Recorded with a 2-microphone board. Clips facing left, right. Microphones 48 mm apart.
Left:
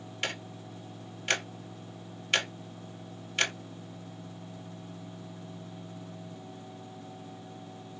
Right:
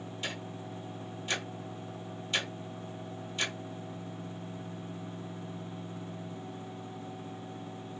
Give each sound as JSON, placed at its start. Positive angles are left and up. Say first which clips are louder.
{"t": 0.2, "sound": "ticking", "louder": "left 4 dB", "side_deg": 65, "distance_m": 0.8}